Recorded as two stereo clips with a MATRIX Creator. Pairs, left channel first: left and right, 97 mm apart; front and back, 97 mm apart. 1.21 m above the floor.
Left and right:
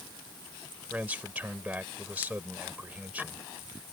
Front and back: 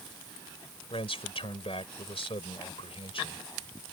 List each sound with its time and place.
0.9 s a man speaking: 15° right